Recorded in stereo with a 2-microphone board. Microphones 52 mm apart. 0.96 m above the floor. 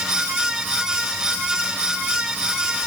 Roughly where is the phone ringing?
I don't hear a phone ringing.